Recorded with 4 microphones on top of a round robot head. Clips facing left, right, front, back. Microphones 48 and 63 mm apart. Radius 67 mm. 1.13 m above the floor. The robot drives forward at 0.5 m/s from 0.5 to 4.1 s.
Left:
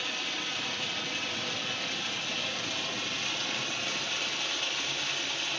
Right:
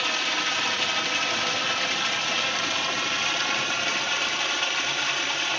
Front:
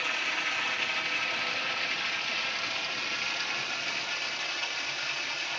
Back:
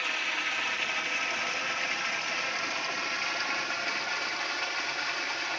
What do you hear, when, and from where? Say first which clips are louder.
0.0 s running water: right 8 dB, even; 95° right, 3 m; by 5.6 s 125° right, 3.5 m